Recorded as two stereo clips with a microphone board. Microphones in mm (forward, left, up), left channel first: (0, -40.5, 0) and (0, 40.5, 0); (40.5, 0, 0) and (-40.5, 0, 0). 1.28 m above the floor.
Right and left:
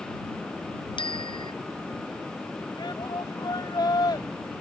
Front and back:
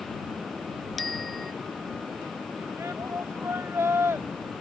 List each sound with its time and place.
1.0 s a bicycle bell: 90° right
2.8 s a shout: 120° right